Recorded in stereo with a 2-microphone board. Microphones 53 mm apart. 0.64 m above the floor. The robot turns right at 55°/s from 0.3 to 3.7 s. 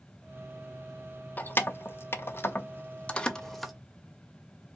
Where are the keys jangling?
35° left (ahead or behind), 0.6 m; by 3.7 s centre (ahead or behind), 0.6 m.